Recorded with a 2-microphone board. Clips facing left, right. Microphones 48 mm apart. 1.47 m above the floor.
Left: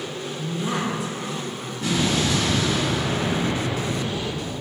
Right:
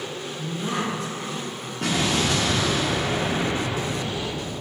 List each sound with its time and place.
0.3 s a woman speaking: 10° left (ahead or behind), 2 m
1.8 s an explosion: 65° right (ahead or behind), 2 m